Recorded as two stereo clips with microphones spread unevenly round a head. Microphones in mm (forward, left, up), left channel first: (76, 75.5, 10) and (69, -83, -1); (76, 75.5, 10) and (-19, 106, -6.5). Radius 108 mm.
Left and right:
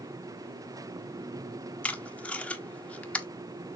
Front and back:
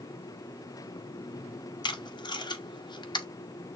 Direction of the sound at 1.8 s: 10° left.